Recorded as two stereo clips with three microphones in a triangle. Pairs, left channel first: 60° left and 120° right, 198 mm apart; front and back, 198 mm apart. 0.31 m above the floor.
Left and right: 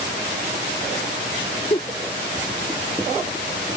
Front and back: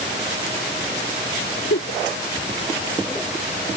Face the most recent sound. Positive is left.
turn(degrees=0)